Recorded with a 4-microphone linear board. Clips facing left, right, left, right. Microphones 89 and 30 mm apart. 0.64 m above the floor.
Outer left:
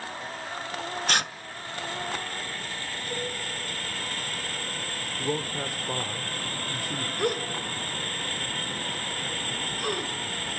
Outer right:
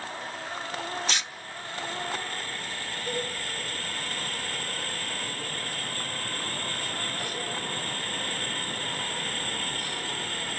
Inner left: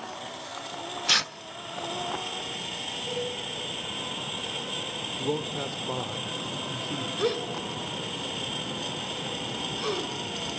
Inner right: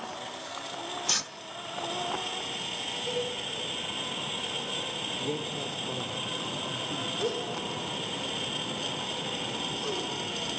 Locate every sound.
1.1 s tearing paper: 55° left (ahead or behind), 0.6 m
3.1 s a cowbell: 45° right (ahead or behind), 3.5 m
5.2 s a man speaking: 70° left (ahead or behind), 1.5 m
7.2 s a gasp: 65° left (ahead or behind), 2.5 m